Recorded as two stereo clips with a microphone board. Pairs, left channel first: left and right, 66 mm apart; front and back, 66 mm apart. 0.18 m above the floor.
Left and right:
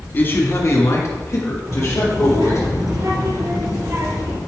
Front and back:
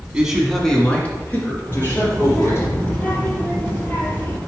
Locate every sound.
0.1 s a man speaking: 120° left, 1.3 m; by 2.7 s 50° left, 4 m
1.7 s a child speaking: 65° right, 2.5 m